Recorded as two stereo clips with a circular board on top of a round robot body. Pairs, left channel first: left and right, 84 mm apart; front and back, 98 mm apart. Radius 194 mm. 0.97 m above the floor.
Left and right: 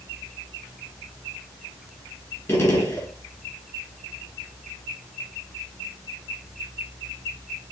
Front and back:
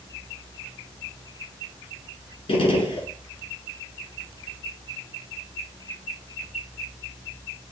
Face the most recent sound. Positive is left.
turn(degrees=35)